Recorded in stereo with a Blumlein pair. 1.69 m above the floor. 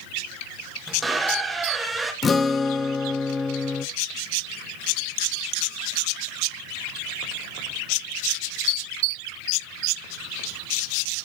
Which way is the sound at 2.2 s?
20° left.